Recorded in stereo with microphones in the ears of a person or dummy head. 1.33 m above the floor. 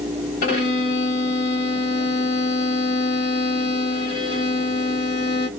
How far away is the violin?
About 1.2 m.